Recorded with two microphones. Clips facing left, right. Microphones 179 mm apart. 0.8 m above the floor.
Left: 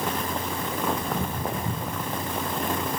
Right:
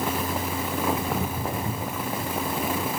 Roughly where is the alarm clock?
No alarm clock in this recording.